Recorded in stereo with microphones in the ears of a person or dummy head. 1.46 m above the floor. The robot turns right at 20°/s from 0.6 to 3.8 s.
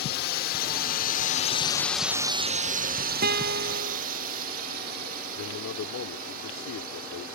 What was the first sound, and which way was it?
A drone, 55° left (ahead or behind).